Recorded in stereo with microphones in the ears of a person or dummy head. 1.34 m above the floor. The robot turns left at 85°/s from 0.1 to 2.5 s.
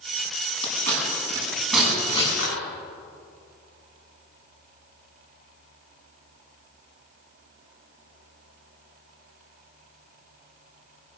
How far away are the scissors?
About 7 m.